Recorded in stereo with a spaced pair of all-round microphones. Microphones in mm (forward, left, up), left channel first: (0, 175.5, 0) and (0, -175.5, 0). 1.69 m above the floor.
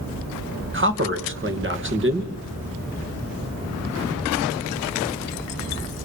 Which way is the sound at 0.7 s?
35° right (ahead or behind).